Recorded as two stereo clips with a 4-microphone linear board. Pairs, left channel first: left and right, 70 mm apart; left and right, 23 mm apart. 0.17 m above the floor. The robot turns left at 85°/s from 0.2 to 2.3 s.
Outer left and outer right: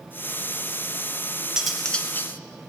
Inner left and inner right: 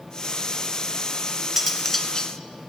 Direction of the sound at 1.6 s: 165° right.